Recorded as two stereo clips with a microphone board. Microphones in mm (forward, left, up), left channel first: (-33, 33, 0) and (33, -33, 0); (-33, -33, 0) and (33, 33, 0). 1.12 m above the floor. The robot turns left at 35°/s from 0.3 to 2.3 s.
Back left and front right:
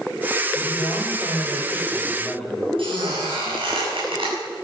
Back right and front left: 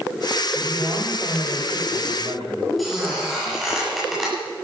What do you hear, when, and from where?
0.6 s a man speaking: 115° left, 5.5 m; by 2.7 s 50° left, 5.5 m
2.8 s a squeak: 45° right, 7 m